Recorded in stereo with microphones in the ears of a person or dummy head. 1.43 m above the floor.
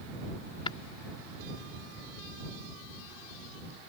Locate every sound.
0.7 s tapping: 25° left (ahead or behind)